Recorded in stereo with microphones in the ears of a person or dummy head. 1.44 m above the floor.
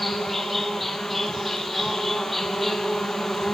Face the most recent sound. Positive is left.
turn(degrees=5)  # may be behind; listen again after turning